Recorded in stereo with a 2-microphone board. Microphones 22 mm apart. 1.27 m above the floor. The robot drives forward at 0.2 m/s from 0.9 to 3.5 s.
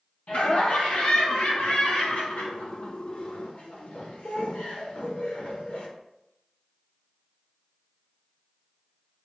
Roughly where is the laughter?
Left.